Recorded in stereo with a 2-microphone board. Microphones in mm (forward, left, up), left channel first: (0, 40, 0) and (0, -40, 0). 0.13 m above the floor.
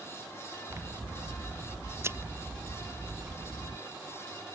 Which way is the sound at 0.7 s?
30° right (ahead or behind).